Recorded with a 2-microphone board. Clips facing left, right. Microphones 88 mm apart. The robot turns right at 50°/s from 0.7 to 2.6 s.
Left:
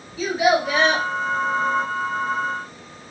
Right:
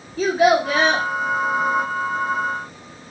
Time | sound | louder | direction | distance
0.2 | a child speaking | right 3 dB | 45° right (ahead or behind) | 1.2 m